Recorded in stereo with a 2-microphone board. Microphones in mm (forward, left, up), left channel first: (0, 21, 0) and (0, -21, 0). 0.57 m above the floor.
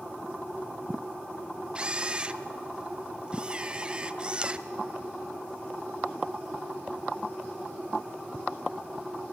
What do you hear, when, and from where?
1.8 s a camera shutter: 25° right (ahead or behind), 0.6 m